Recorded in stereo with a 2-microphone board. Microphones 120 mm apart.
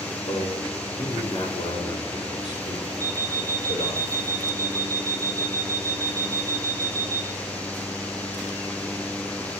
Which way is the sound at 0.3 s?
55° left (ahead or behind).